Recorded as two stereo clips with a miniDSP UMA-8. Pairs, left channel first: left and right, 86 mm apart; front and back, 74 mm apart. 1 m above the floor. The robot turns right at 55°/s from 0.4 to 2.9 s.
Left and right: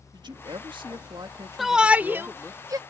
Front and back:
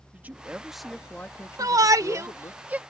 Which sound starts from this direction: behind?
A shout, at 1.6 s.